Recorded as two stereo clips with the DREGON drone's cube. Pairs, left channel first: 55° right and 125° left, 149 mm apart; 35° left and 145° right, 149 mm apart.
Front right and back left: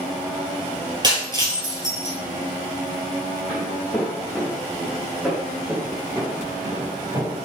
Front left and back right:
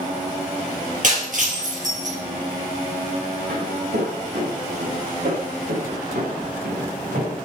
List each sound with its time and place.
1.0 s breaking glass: 175° right, 3 m
3.5 s footsteps: 130° right, 3 m; by 7.3 s 170° right, 3 m